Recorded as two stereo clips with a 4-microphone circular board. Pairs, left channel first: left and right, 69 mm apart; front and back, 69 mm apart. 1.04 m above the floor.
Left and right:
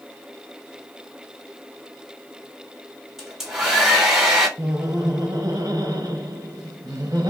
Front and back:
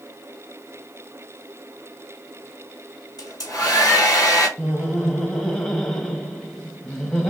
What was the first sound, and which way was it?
A hair dryer, 10° right.